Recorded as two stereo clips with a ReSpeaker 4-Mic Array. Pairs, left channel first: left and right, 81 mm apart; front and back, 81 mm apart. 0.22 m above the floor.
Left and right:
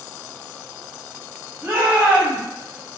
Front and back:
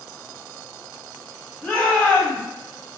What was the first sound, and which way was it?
A shout, 75° right.